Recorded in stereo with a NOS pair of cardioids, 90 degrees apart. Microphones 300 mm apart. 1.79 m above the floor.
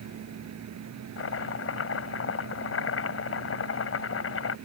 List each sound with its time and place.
0.0 s a fan: 60° right
1.2 s chopping: 45° left